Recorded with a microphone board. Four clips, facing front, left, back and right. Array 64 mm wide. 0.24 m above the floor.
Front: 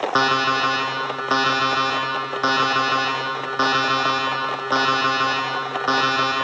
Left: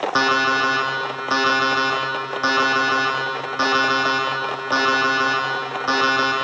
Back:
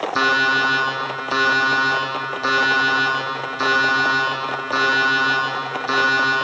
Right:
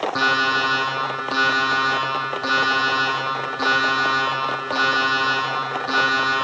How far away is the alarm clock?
About 6 m.